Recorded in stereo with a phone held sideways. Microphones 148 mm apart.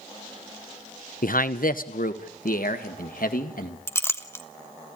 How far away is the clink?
About 1.0 m.